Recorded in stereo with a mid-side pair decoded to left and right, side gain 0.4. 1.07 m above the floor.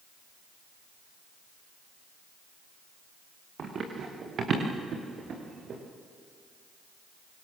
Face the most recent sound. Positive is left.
turn(degrees=-60)